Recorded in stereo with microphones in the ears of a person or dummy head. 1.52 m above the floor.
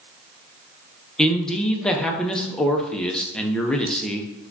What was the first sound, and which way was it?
A man speaking, 5° left (ahead or behind).